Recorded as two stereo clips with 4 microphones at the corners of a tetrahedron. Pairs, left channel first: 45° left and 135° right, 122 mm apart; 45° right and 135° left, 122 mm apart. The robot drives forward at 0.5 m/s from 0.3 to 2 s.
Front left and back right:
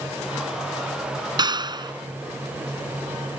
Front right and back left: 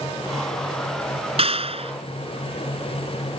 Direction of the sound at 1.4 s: 170° left.